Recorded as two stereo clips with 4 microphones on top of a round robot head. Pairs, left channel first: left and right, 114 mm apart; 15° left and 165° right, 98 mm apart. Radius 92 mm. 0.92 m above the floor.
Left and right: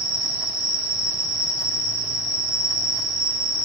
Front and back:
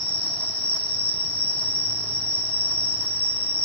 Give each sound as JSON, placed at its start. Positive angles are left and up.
{"t": 0.0, "sound": "an insect", "azimuth_deg": 30, "distance_m": 2.5}